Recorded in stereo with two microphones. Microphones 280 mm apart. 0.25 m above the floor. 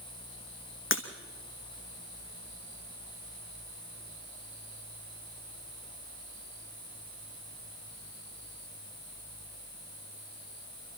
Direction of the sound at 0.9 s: 45° left (ahead or behind).